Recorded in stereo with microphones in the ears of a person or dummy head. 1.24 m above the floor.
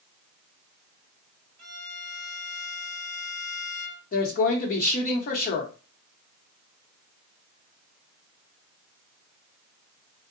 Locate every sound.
1.6 s a violin: 50° right (ahead or behind), 0.9 m
4.1 s a woman speaking: 50° left (ahead or behind), 0.9 m